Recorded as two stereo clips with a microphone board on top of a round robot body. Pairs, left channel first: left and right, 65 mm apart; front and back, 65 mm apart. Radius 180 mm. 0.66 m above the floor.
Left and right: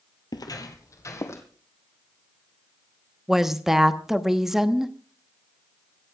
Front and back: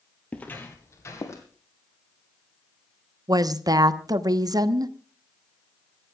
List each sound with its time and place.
0.3 s footsteps: 75° left, 1.2 m; by 1.4 s 45° left, 2.5 m
3.3 s a woman speaking: 170° right, 1.2 m